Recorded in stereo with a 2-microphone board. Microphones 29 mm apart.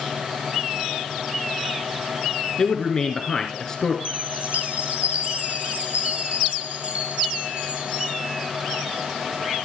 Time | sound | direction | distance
2.6 | a man speaking | 20° left (ahead or behind) | 1.8 m
4.0 | a chime | 55° right (ahead or behind) | 5.5 m